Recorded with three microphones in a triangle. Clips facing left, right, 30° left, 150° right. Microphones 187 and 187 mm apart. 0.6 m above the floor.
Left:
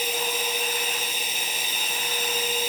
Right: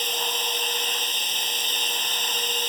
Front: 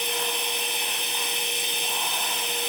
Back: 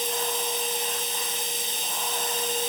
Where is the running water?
10° left.